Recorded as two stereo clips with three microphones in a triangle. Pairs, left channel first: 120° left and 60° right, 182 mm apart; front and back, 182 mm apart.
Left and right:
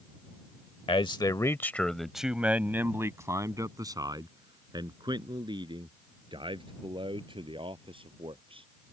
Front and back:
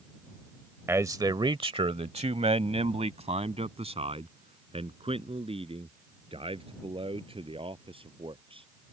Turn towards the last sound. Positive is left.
turn(degrees=-120)